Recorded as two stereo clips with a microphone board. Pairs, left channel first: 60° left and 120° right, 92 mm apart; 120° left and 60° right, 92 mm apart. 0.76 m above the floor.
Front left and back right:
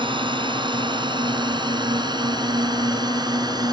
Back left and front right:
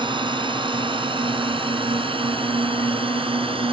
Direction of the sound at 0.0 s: 90° right.